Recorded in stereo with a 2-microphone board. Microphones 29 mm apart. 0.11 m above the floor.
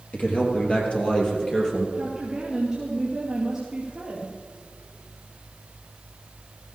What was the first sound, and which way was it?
A man speaking, 55° left (ahead or behind).